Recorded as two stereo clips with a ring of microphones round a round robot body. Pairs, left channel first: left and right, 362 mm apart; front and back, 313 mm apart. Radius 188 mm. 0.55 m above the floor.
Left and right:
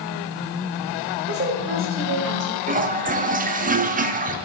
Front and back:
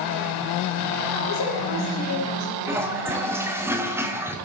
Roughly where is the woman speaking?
Ahead right.